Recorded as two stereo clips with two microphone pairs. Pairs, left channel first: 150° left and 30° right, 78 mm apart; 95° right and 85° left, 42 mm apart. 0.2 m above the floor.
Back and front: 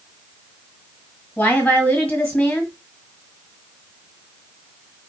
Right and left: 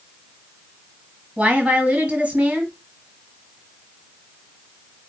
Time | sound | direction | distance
1.4 | a woman speaking | 95° left | 1.7 m